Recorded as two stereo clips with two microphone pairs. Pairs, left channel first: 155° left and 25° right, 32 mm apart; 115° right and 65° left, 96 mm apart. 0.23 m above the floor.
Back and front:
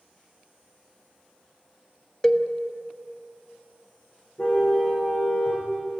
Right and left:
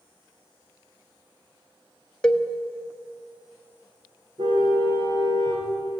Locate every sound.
2.2 s a cowbell: 175° right, 1.3 m
4.4 s a car horn: 100° left, 7 m